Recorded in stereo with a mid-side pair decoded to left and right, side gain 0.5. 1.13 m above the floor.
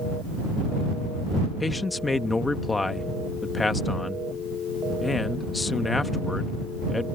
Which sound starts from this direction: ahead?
A man speaking, at 1.6 s.